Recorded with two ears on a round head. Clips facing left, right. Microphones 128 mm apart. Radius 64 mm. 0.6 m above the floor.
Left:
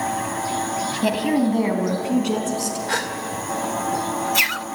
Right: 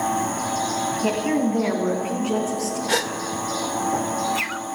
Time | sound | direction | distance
1.0 | a woman speaking | 40° left (ahead or behind) | 3.5 m
2.9 | a gasp | 30° right (ahead or behind) | 2.0 m